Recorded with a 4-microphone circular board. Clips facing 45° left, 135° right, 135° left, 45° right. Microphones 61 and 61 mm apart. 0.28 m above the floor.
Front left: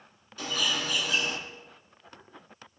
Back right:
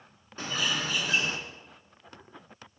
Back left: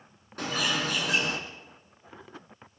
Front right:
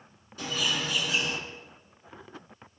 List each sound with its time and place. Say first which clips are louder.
0.4 s a bird: even, back left 2 dB; 170° left, 3 m